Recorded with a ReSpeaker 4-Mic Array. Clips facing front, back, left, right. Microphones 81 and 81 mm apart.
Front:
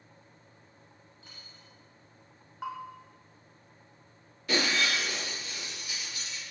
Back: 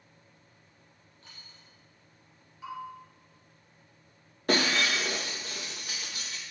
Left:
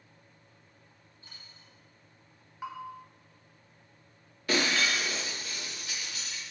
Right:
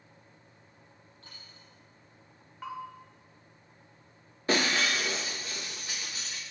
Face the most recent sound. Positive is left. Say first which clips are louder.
# back 2 dB, right 1 dB
turn(degrees=-145)